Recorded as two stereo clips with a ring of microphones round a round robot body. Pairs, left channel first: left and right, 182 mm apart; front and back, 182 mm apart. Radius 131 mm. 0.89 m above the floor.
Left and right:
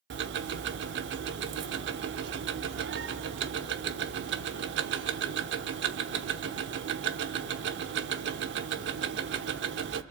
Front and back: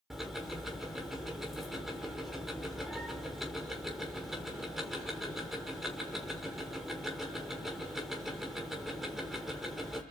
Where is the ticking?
90° right, 0.8 m.